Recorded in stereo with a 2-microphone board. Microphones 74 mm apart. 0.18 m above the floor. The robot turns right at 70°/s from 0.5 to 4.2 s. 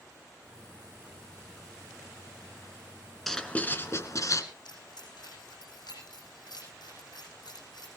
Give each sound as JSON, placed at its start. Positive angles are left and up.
{"t": 3.3, "sound": "writing", "azimuth_deg": 5, "distance_m": 1.4}
{"t": 4.7, "sound": "keys jangling", "side_deg": 75, "distance_m": 8.0}